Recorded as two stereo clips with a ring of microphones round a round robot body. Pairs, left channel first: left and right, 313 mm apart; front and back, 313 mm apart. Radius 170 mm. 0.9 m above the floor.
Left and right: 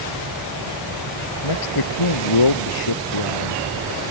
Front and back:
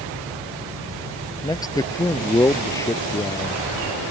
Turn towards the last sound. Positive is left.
turn(degrees=80)